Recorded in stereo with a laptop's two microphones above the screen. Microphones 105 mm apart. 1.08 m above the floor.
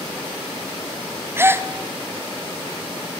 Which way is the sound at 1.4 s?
20° right (ahead or behind).